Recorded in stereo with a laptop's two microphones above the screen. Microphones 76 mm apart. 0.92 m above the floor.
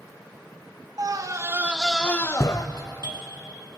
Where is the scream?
55° right (ahead or behind), 0.8 m; by 2.7 s 50° left (ahead or behind), 0.8 m.